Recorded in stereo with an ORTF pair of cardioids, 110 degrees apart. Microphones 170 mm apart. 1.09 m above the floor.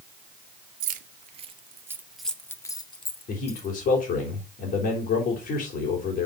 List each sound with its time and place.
0.8 s keys jangling: 55° right, 1.5 m; by 3.7 s 40° left, 1.9 m
3.3 s a man speaking: 65° left, 3.5 m